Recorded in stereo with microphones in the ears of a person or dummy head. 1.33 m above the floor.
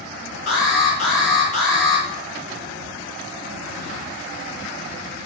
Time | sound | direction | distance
0.5 | an alarm | 50° left (ahead or behind) | 4 m